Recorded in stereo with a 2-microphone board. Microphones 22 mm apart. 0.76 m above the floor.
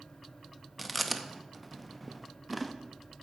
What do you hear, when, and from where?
0.8 s chewing: centre (ahead or behind), 0.7 m